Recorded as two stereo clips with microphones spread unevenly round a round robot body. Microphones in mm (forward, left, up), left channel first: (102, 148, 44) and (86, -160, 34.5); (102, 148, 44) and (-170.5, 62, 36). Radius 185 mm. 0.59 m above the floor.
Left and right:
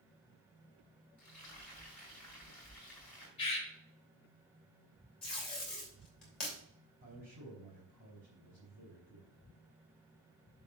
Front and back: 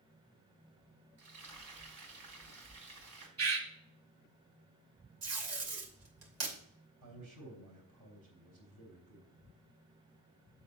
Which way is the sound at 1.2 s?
175° left.